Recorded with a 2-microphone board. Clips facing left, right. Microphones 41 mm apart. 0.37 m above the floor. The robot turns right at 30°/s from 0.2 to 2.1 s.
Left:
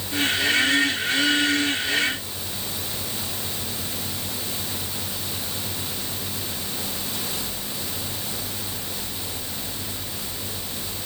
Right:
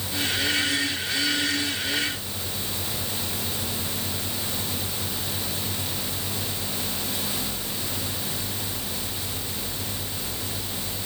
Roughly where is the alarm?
I don't hear an alarm.